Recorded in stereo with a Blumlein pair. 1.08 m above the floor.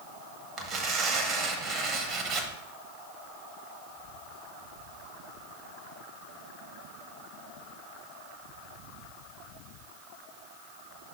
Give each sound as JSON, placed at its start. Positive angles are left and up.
{"t": 0.6, "sound": "tearing paper", "azimuth_deg": -30, "distance_m": 1.0}